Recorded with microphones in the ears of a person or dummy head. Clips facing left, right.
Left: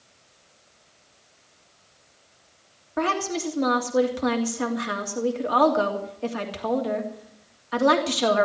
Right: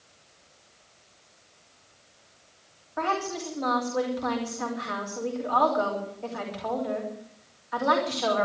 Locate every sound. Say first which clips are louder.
3.0 s a woman speaking: left 4 dB; 45° left (ahead or behind), 3 m